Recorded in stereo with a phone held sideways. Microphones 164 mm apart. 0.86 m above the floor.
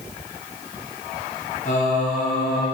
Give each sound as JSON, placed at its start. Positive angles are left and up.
{"t": 1.6, "sound": "singing", "side_deg": 50, "distance_m": 4.0}